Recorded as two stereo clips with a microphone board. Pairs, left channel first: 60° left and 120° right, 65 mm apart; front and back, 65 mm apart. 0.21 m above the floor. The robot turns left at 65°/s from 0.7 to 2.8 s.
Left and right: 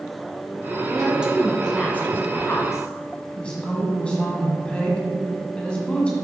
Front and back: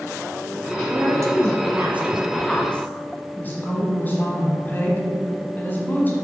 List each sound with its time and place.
0.9 s a woman speaking: 170° right, 1.4 m; by 2.9 s 65° left, 1.4 m
3.4 s a woman speaking: straight ahead, 1.5 m